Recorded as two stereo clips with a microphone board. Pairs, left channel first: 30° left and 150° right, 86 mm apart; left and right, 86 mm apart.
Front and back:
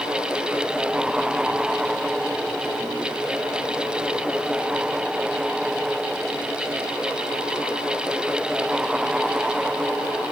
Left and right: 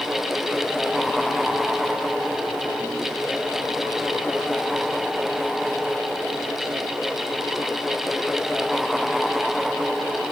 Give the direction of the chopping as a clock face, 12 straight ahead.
I don't hear chopping.